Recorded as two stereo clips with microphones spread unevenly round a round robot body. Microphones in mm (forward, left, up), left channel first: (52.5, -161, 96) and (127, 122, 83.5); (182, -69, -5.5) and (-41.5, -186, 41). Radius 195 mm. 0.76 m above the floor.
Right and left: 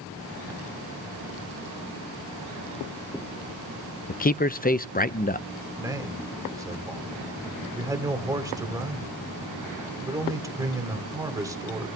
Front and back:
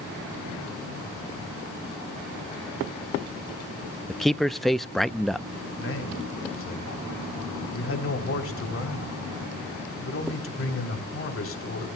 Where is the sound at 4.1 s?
50° right, 0.6 m.